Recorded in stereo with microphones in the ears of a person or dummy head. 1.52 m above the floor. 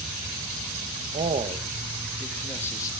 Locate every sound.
1.1 s a man speaking: 35° right (ahead or behind), 1.4 m; by 2.9 s 20° left (ahead or behind), 2.5 m